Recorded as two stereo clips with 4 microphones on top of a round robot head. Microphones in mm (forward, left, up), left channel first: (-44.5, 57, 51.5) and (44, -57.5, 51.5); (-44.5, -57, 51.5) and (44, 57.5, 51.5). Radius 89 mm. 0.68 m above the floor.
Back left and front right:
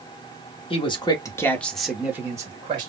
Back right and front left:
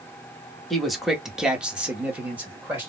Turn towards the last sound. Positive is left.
turn(degrees=-20)